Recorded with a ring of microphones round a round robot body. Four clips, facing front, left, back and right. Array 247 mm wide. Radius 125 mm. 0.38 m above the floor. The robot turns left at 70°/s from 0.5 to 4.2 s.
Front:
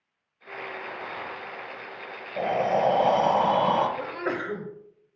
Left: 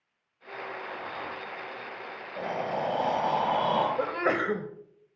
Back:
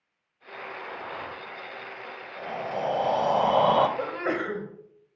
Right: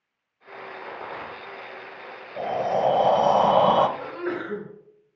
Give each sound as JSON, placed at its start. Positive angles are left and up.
{"t": 0.8, "sound": "a rattle", "azimuth_deg": -75, "distance_m": 8.0}
{"t": 2.4, "sound": "breathing", "azimuth_deg": -20, "distance_m": 1.8}
{"t": 4.0, "sound": "a sneeze", "azimuth_deg": 115, "distance_m": 2.0}